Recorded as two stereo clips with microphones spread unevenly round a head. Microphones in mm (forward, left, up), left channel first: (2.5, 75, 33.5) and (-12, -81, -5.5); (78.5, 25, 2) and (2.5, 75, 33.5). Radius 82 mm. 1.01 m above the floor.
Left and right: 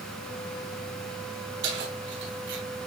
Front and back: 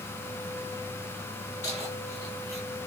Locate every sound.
1.6 s keys jangling: 105° right, 9.5 m; by 2.6 s 110° right, 9.5 m